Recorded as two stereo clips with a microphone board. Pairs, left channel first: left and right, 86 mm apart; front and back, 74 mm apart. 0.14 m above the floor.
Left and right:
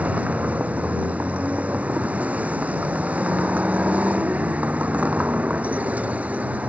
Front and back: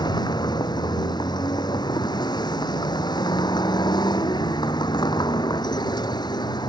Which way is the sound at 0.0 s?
15° right.